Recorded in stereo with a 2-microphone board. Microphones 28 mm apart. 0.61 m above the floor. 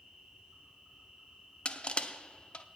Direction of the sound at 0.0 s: 20° right (ahead or behind).